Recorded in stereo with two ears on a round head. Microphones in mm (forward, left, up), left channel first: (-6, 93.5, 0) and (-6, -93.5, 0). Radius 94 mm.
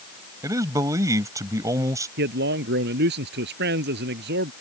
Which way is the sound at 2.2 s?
50° right (ahead or behind).